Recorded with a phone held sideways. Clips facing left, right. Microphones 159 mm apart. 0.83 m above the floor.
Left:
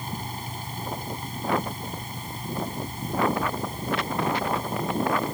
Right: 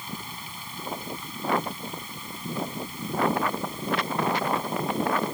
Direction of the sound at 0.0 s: 45° left (ahead or behind).